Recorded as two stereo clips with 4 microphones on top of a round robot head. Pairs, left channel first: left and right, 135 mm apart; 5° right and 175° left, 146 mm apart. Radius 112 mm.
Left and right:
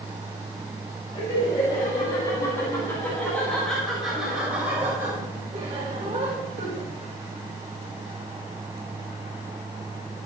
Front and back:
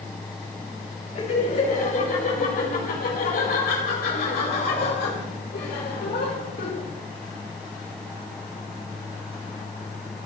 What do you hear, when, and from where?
1.1 s laughter: 30° left, 6.5 m; by 6.9 s 40° right, 5.5 m